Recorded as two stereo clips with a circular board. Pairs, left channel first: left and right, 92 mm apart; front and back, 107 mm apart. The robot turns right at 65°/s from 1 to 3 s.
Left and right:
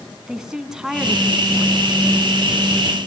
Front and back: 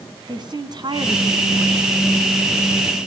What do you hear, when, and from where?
0.3 s a woman speaking: 175° right, 1.8 m; by 1.9 s 115° right, 1.8 m